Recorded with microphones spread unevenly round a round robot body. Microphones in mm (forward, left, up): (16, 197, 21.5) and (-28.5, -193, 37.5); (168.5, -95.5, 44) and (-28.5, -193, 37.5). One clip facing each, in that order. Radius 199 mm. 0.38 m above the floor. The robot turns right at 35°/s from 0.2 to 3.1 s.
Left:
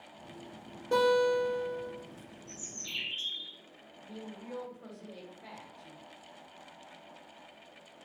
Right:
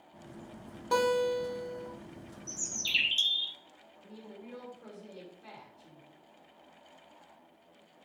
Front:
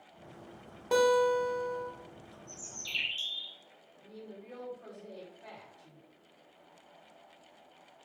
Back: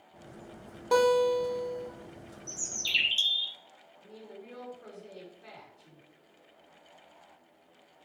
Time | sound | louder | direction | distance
0.9 | a guitar | left 2 dB, back 2 dB | 65° right | 1.4 m
2.5 | a bird | right 2 dB, back 5 dB | 155° right | 0.6 m
4.0 | a woman speaking | left 3 dB, even | 75° left | 1.9 m